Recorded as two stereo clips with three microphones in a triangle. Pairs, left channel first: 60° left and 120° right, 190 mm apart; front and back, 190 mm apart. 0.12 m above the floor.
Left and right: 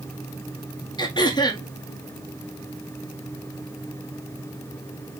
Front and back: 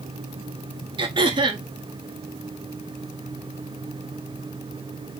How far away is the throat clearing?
About 0.8 m.